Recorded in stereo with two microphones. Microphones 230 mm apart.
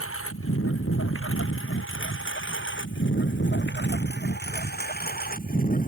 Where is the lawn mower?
70° left (ahead or behind); by 5.9 s 35° left (ahead or behind).